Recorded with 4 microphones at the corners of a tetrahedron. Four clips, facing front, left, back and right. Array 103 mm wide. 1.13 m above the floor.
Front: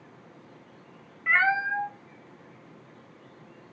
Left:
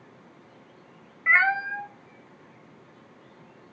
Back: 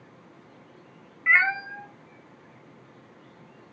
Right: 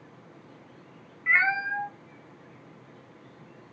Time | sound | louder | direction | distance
1.3 | a cat meowing | left 3 dB, back 1 dB | 75° left | 0.6 m